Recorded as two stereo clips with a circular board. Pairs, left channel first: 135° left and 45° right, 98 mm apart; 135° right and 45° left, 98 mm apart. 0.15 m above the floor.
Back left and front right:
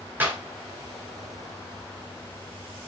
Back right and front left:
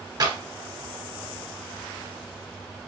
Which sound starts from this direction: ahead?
A clap, at 0.2 s.